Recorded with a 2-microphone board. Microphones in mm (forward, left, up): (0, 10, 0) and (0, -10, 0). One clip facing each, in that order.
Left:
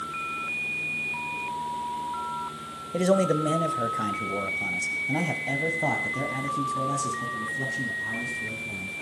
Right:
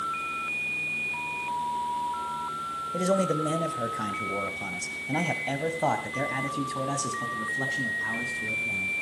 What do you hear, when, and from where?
2.9 s a man speaking: 25° left (ahead or behind), 1.7 m; by 8.9 s 40° right (ahead or behind), 3.5 m